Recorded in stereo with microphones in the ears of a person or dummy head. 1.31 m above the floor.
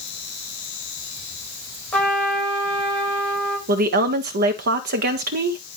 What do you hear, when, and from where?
1.9 s a trumpet: 10° left (ahead or behind), 4 m
3.7 s a woman speaking: 50° right (ahead or behind), 1.4 m